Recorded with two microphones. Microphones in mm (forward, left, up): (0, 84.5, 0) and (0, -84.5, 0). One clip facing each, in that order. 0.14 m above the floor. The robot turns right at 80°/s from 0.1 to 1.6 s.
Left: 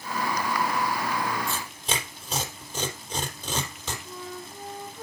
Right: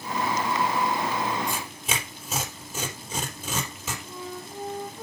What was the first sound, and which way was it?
Tearing paper, 15° right (ahead or behind).